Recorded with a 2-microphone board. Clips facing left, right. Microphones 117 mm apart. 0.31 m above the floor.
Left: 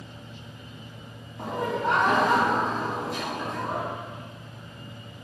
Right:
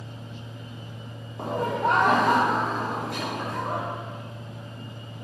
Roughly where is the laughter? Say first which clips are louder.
Right 2 dB; right.